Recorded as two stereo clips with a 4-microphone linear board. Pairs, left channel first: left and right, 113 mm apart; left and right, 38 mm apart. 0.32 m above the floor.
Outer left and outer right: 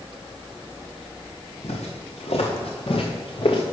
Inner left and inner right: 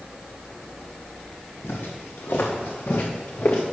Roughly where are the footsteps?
Left.